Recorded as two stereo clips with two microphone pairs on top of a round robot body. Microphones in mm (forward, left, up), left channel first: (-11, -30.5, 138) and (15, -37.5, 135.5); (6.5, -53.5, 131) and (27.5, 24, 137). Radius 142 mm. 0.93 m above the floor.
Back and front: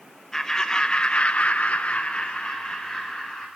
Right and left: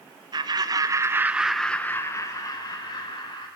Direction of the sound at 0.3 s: 90° left.